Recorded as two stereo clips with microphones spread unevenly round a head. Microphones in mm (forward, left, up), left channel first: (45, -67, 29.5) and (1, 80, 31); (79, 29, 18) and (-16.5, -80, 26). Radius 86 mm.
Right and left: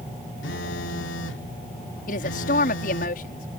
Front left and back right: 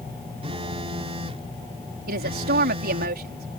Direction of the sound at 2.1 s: 115° right.